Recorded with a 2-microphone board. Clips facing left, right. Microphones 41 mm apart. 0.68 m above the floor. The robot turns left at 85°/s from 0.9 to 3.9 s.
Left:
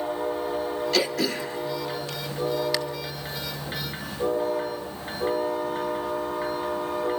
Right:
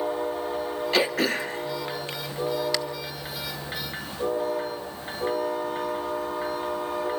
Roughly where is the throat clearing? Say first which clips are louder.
Right 3 dB; right.